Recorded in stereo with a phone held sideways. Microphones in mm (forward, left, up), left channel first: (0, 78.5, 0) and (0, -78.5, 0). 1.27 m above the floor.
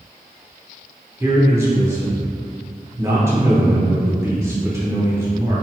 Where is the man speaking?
15° right (ahead or behind), 0.8 m.